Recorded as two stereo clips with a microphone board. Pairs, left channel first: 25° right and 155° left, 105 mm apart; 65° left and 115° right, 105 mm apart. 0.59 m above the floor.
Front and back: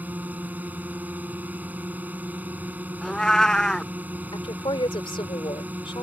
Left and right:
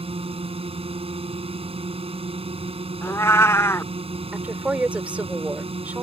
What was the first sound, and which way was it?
A drone, 130° right.